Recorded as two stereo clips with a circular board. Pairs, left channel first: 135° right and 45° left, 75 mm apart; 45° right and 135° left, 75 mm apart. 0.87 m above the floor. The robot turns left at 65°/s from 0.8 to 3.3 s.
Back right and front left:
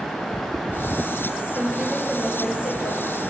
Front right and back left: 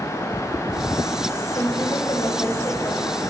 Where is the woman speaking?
15° right, 4.5 m; by 3.2 s 125° right, 4.5 m.